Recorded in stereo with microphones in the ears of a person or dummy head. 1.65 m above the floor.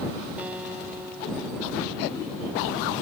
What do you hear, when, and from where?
0.4 s a guitar: 10° right (ahead or behind)